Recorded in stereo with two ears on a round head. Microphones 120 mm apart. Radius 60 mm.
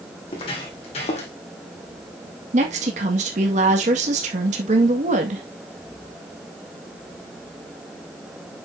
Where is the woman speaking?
50° right (ahead or behind), 1.9 m.